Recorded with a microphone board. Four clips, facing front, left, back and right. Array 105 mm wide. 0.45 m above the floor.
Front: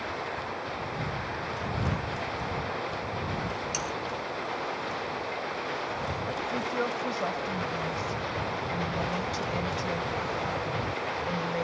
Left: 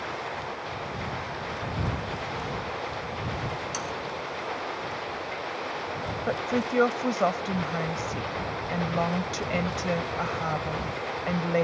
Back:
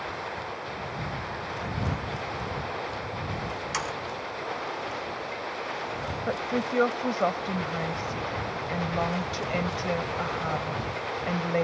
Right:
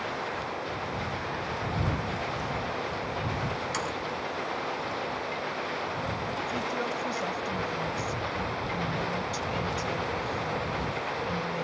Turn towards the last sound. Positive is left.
turn(degrees=125)